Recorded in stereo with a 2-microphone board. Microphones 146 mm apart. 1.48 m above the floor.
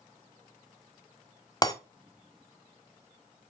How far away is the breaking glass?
About 1.6 m.